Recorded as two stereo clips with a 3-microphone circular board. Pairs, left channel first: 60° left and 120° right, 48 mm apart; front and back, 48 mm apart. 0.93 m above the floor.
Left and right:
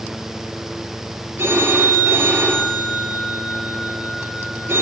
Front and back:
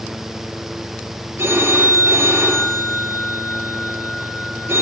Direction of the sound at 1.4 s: 155° right.